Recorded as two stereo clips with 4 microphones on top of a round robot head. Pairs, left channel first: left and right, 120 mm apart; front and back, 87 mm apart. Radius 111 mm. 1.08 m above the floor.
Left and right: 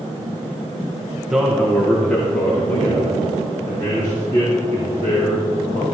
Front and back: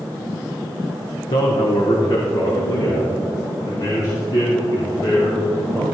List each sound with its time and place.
1.3 s a man speaking: 10° right, 1.1 m; by 5.8 s 30° left, 5 m